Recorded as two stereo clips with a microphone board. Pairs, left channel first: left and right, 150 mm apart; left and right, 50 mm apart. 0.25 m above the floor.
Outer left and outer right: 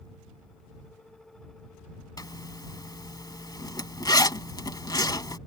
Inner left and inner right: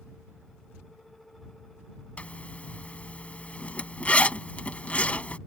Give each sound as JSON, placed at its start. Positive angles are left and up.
{"t": 2.2, "sound": "a zipper", "side_deg": 25}